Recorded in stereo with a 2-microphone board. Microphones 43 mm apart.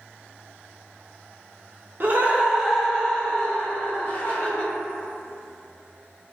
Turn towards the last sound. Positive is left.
turn(degrees=35)  # may be behind; listen again after turning